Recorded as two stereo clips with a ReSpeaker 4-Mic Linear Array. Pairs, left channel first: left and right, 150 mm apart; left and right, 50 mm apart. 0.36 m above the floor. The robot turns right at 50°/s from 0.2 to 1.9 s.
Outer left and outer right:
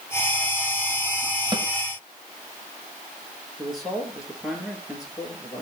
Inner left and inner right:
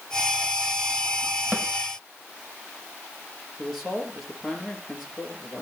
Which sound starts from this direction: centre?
A man speaking, at 3.6 s.